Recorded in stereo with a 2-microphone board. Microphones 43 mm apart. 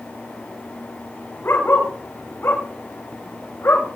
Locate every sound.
1.4 s a dog barking: 55° left (ahead or behind), 4.5 m